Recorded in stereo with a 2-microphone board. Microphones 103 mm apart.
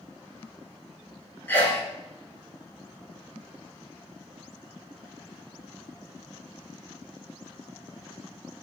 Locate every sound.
1.5 s a sneeze: 20° left (ahead or behind), 1.2 m